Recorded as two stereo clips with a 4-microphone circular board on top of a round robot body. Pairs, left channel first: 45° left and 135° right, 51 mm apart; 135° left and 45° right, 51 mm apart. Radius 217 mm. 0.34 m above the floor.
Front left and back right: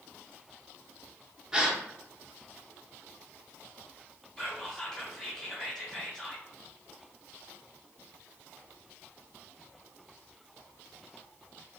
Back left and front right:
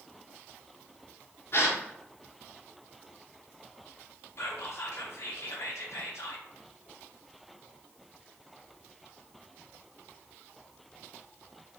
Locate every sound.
1.5 s a gasp: 150° left, 1.1 m
4.4 s whispering: 120° left, 1.6 m